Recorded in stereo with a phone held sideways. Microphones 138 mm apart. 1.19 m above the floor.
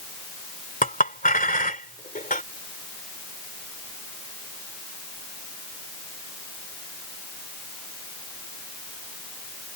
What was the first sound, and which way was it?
A clink, 80° left.